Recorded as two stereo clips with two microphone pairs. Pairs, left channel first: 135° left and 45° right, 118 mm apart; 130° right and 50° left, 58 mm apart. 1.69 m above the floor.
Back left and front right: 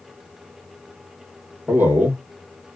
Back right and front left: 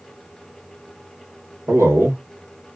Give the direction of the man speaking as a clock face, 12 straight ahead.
11 o'clock.